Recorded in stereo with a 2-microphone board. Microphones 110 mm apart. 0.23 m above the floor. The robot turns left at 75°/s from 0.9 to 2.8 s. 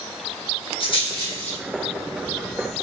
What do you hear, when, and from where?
0.8 s a rattle: 50° left (ahead or behind), 1.2 m; by 2.8 s 60° right (ahead or behind), 1.2 m